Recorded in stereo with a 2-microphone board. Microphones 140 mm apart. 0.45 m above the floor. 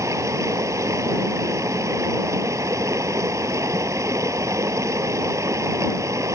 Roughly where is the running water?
Right.